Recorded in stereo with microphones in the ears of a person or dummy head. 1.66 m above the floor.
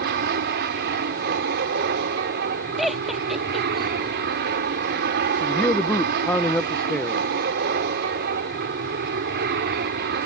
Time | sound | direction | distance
0.0 | an aircraft | 55° right (ahead or behind) | ?
2.8 | laughter | centre (ahead or behind) | ?
5.4 | a man speaking | 5° left (ahead or behind) | ?